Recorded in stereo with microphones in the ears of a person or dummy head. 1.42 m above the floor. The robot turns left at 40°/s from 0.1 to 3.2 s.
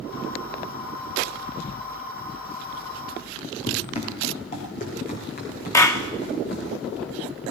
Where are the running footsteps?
35° left (ahead or behind), 4.5 m; by 6.7 s 55° left (ahead or behind), 8 m.